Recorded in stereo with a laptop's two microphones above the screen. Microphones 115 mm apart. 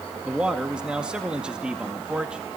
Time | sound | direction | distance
0.2 | a man speaking | 10° right (ahead or behind) | 1.9 m